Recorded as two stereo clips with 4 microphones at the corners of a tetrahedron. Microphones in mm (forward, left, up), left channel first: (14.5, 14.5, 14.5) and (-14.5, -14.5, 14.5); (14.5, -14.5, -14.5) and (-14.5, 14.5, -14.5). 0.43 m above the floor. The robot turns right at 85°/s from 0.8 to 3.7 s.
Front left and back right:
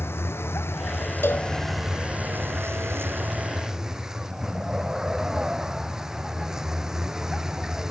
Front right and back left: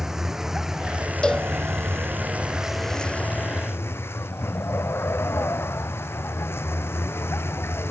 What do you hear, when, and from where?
0.0 s a vehicle: 55° left; by 7.9 s 55° right
1.2 s a cowbell: 25° left; by 1.5 s 45° left